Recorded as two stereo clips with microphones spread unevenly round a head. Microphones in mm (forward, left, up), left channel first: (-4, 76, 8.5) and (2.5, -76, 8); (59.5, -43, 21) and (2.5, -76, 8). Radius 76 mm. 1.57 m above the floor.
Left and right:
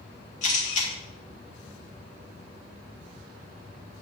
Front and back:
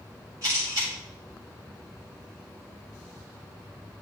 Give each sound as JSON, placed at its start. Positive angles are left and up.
{"t": 0.4, "sound": "a camera shutter", "azimuth_deg": 135, "distance_m": 1.8}